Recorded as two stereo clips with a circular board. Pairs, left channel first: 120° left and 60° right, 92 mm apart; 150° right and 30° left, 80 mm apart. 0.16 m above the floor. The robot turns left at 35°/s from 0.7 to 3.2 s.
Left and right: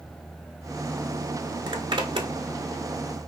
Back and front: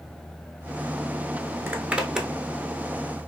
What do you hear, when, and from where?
1.7 s a zipper: 35° right, 0.6 m; by 2.3 s 55° right, 0.6 m